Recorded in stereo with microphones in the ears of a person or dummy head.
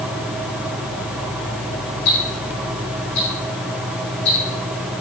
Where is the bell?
No bell in this recording.